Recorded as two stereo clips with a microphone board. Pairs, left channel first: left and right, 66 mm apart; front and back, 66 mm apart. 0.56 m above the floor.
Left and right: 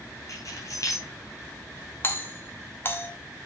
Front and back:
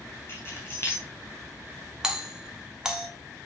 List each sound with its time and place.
0.3 s keys jangling: 50° left, 3.5 m
2.0 s a doorbell: 105° left, 1.3 m